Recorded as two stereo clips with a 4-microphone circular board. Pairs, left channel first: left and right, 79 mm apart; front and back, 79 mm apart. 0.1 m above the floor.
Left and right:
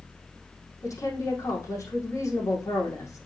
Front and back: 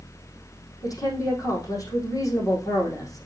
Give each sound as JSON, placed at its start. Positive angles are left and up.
{"t": 0.8, "sound": "a woman speaking", "azimuth_deg": 40, "distance_m": 4.5}